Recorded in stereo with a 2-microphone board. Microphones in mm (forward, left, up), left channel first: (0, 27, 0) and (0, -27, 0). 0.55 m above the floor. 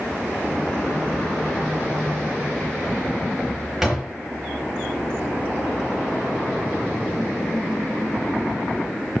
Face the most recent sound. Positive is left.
turn(degrees=-5)  # may be behind; listen again after turning